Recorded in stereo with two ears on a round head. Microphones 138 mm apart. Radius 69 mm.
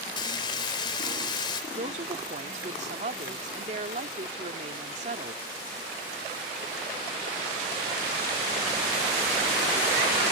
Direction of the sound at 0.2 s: 30° left (ahead or behind).